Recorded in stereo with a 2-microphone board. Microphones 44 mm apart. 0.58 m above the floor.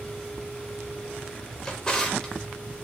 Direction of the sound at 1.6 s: 15° left (ahead or behind).